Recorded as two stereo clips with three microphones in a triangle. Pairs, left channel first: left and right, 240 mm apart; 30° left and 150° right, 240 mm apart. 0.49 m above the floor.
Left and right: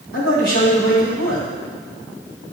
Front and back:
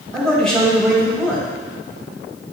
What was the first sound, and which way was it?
A man speaking, 115° left.